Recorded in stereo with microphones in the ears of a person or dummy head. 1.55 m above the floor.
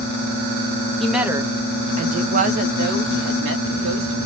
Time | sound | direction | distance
1.0 | a woman speaking | 5° left (ahead or behind) | 0.6 m